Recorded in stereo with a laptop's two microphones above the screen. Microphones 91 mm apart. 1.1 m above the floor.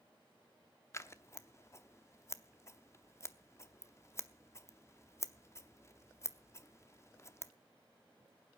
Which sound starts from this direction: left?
Scissors, at 0.9 s.